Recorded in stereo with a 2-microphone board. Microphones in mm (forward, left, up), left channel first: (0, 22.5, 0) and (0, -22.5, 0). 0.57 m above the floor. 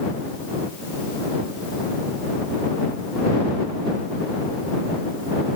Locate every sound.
Only background noise.